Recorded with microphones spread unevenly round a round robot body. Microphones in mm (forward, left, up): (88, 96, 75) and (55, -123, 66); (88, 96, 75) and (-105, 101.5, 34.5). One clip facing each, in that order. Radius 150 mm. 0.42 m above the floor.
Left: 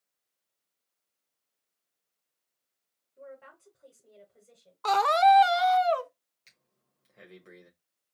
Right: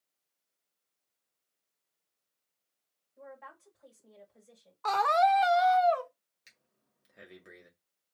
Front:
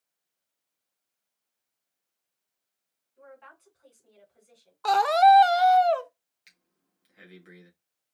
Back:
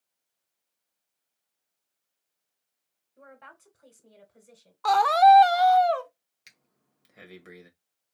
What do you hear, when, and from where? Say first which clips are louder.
3.2 s a woman speaking: left 3 dB, front 1 dB; 170° left, 3 m
4.8 s a scream: left 4 dB, back 1 dB; 65° left, 0.9 m
6.5 s breathing: even, back 4 dB; 175° right, 1.7 m